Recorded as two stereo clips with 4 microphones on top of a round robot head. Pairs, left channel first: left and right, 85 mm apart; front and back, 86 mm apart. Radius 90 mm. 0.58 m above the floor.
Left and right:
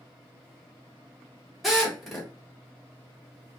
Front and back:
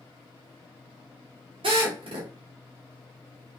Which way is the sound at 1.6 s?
Straight behind.